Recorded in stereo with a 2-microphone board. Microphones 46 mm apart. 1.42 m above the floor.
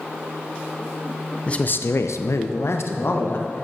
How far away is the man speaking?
About 0.6 m.